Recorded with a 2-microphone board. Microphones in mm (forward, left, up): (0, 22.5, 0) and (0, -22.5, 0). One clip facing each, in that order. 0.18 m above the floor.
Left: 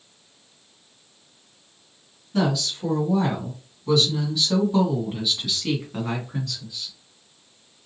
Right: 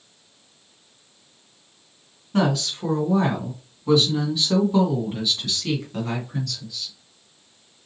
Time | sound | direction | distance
2.3 | a woman speaking | 45° right (ahead or behind) | 1.6 m